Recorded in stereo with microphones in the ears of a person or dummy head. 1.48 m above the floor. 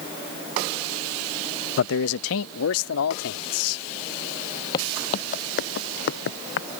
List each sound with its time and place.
1.8 s a man speaking: 65° left (ahead or behind); by 3.9 s 85° left
4.7 s footsteps: 20° left (ahead or behind); by 6.7 s 65° left (ahead or behind)